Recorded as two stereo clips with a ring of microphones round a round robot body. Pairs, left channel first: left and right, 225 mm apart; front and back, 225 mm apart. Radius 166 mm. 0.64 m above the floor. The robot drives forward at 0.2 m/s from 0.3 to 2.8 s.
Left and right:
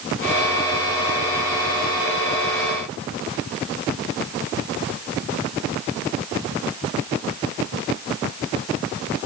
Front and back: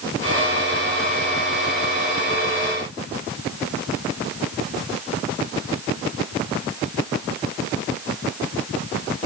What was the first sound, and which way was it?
Only background noise.